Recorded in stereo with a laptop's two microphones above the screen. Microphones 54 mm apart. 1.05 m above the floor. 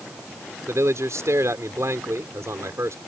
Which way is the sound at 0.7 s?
65° right (ahead or behind).